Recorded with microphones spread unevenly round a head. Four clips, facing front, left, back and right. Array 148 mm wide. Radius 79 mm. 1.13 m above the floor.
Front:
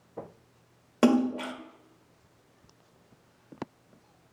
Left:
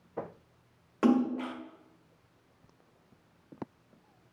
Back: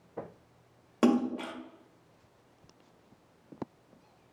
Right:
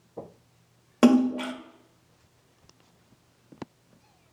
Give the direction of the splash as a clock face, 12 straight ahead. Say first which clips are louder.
Right 7 dB, front 3 dB; 4 o'clock.